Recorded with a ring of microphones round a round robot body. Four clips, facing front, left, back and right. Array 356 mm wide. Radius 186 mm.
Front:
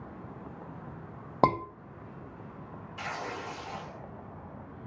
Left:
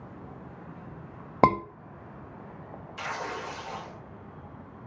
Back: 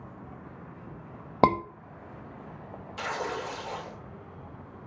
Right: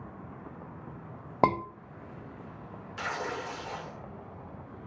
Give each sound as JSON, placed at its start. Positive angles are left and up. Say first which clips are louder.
{"t": 1.4, "sound": "a scream", "louder": "left 4 dB, back 3 dB", "azimuth_deg": 125, "distance_m": 0.8}
{"t": 3.0, "sound": "tearing paper", "louder": "even, back 5 dB", "azimuth_deg": -160, "distance_m": 1.2}